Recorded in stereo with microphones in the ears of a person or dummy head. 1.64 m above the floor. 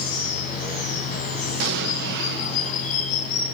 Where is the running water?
50° left (ahead or behind), 10 m.